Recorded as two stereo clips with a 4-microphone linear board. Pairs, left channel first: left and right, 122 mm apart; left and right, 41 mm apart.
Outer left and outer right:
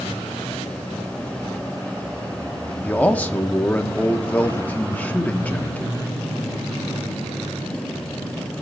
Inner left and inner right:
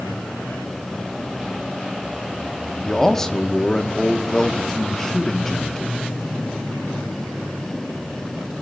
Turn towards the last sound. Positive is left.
turn(degrees=15)  # may be behind; listen again after turning